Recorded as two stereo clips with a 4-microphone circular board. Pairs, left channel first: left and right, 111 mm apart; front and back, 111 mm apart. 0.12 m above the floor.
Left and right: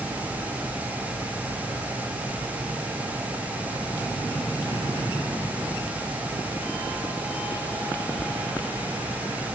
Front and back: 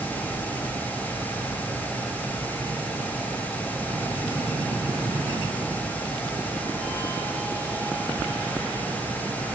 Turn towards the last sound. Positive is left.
No sound to turn to.